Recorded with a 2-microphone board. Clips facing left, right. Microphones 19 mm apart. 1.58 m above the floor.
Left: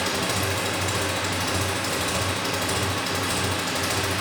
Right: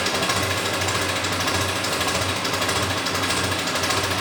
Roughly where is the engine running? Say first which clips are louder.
Right 3 dB; right.